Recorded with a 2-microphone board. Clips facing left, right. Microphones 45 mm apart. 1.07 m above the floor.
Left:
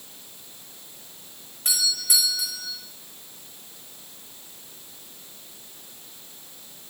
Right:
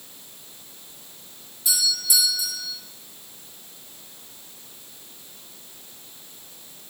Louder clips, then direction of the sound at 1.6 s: Right 1 dB; 50° left (ahead or behind).